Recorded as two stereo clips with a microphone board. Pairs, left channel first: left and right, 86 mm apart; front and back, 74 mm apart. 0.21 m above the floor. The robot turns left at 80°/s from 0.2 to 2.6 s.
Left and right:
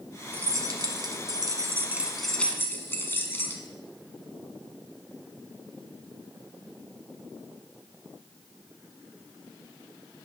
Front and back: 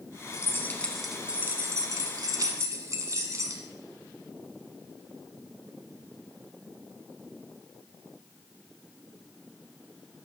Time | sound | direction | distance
0.3 | keys jangling | 30° right | 1.1 m